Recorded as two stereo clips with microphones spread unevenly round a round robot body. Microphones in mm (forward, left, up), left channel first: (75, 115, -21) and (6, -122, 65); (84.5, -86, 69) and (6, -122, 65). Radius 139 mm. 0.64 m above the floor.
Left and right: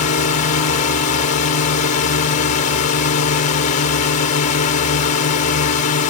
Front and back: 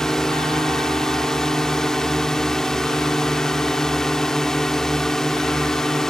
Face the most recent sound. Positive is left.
turn(degrees=110)